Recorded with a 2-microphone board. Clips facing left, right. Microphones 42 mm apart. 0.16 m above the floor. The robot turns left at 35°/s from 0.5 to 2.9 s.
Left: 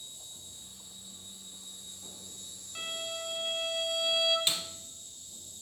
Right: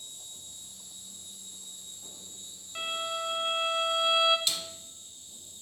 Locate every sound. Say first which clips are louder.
0.0 s an insect: right 1 dB; 70° right, 1.7 m; by 5.6 s 155° right, 1.7 m
2.8 s a violin: right 5 dB; 20° right (ahead or behind), 1.1 m
4.5 s a snare drum: left 1 dB; 30° left (ahead or behind), 0.8 m